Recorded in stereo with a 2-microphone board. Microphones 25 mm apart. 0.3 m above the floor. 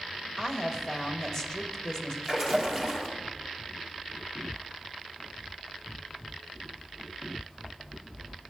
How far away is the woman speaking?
About 0.9 m.